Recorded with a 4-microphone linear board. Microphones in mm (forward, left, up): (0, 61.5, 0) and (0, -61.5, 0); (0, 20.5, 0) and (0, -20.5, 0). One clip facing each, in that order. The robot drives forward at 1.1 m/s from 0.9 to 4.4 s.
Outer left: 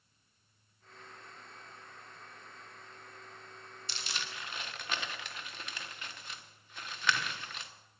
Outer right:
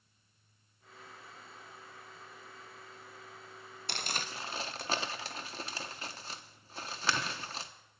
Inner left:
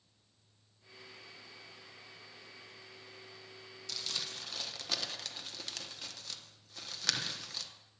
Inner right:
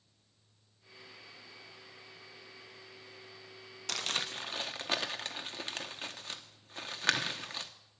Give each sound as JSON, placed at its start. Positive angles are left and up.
{"t": 3.9, "sound": "crumpling", "side_deg": -60, "distance_m": 0.6}